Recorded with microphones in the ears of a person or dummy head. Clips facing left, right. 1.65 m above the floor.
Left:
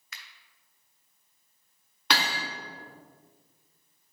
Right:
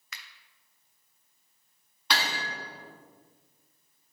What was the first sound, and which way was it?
A finger snap, 70° right (ahead or behind).